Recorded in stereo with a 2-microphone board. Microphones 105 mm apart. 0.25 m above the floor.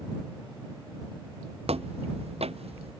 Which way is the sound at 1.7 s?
85° right.